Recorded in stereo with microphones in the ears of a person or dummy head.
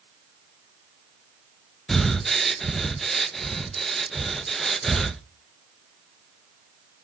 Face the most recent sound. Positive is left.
turn(degrees=0)  # may be behind; listen again after turning